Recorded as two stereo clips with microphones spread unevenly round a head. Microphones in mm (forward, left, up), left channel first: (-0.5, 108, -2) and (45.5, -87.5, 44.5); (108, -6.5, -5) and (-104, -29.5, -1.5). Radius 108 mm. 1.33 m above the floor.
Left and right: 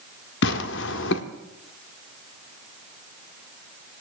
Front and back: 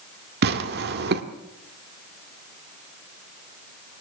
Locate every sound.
0.4 s tearing paper: 145° left, 1.7 m